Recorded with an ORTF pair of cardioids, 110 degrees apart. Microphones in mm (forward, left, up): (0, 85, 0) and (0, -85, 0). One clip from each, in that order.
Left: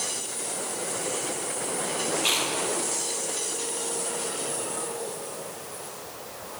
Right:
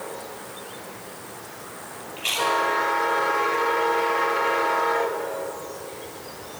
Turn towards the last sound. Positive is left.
turn(degrees=-5)